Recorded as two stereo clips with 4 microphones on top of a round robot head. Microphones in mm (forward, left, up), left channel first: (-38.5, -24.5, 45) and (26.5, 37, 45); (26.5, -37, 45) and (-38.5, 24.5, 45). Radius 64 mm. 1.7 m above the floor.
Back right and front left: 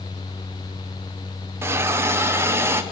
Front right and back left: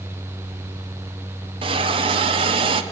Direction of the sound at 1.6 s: 110° left.